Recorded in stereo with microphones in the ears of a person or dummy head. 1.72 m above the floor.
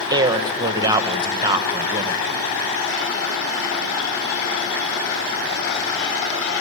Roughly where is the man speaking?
Right.